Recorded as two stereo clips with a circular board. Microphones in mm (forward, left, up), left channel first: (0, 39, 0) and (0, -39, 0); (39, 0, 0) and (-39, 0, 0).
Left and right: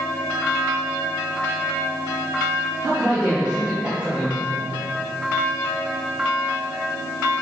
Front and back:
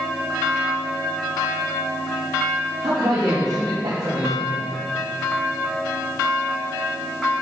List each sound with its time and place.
2.8 s a man speaking: 160° right, 3.5 m